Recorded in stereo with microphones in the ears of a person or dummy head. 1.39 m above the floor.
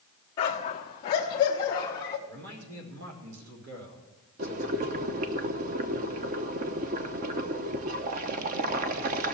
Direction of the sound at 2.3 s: 80° right.